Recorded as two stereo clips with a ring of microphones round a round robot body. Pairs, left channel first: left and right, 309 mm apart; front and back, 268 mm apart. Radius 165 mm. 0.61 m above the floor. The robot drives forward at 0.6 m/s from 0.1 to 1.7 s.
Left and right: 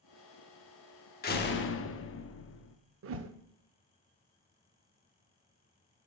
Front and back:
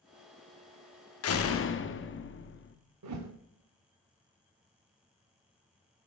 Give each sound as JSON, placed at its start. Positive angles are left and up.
{"t": 1.2, "sound": "a door slam", "azimuth_deg": 30, "distance_m": 0.8}
{"t": 3.0, "sound": "a whoosh", "azimuth_deg": -140, "distance_m": 0.6}